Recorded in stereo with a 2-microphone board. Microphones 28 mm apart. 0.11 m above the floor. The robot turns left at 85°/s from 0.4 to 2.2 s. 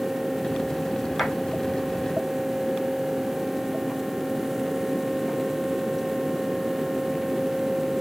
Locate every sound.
1.2 s a clap: 40° left (ahead or behind), 6.5 m; by 1.3 s 50° left (ahead or behind), 6.5 m